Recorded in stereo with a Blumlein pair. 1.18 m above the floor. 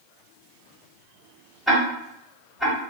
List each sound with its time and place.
1.7 s ticking: 5° left, 2 m